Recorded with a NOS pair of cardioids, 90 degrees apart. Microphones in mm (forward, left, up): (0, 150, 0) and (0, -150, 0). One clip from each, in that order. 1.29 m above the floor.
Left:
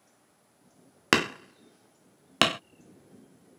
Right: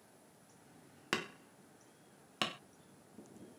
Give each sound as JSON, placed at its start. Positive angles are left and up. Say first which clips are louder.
{"t": 1.1, "sound": "hammering", "louder": "left 14 dB", "azimuth_deg": 65}